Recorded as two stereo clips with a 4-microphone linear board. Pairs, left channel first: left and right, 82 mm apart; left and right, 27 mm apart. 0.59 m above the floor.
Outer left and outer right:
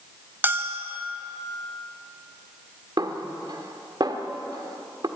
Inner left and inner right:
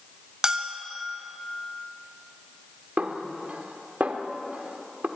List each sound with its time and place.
0.4 s a bell: 25° right (ahead or behind), 1.5 m
3.0 s a snare drum: 55° right (ahead or behind), 1.6 m